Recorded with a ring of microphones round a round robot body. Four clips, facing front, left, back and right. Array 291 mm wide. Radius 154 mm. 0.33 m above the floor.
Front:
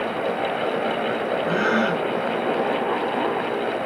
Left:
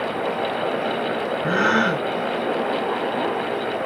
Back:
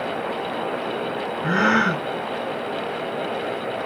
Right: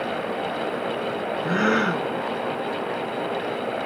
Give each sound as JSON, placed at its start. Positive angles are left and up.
{"t": 1.4, "sound": "a gasp", "azimuth_deg": 150, "distance_m": 1.3}